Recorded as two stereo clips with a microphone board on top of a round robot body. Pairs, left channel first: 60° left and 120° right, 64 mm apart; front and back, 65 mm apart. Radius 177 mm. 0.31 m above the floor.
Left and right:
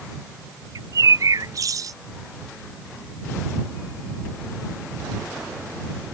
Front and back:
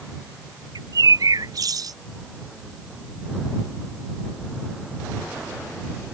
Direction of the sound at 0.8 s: 155° right.